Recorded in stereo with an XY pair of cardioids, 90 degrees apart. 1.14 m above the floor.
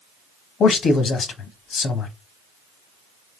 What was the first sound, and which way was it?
A man speaking, 70° left.